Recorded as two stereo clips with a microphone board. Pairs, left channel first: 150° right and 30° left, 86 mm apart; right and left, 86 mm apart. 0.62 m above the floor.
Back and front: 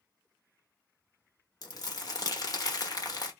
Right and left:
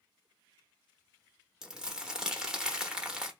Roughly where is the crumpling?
Behind.